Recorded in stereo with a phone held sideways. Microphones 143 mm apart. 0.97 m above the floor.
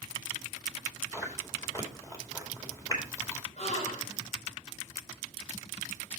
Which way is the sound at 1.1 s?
25° left (ahead or behind).